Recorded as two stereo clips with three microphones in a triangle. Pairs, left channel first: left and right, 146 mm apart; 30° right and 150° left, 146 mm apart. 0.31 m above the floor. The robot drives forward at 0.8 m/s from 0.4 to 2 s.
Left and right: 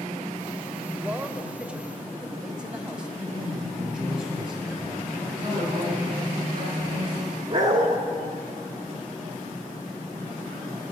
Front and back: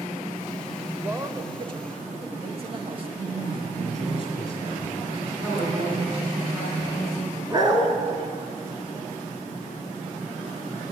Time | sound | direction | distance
1.0 | a man speaking | 150° right | 0.9 m
3.2 | a man speaking | 175° right | 4.5 m
5.4 | a woman speaking | 140° right | 4 m
7.5 | a dog barking | 150° right | 1.8 m